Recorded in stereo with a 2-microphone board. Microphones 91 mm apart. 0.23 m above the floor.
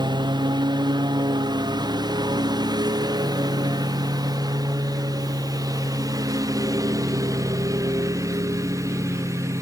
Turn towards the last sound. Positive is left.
turn(degrees=-35)  # may be behind; listen again after turning